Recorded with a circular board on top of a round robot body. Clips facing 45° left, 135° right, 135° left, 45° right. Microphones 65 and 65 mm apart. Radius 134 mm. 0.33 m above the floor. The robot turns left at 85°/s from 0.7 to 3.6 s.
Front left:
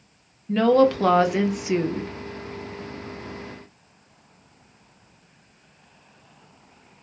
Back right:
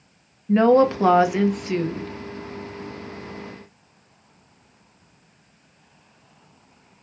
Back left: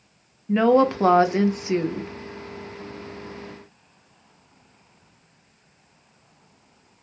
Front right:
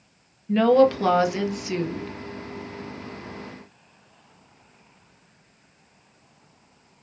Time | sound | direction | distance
0.5 | a woman speaking | 165° right | 1.0 m